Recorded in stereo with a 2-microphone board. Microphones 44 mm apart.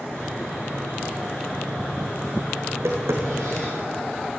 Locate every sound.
0.1 s sawing: 15° left (ahead or behind), 7.5 m
2.7 s tapping: 75° right (ahead or behind), 4 m